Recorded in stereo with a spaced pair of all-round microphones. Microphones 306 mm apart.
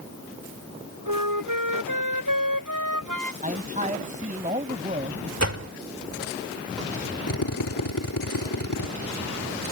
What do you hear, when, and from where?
1.1 s a flute: 85° right
3.4 s a man speaking: 25° right (ahead or behind)
5.4 s a door slam: 55° right (ahead or behind)
7.3 s a drill: 80° left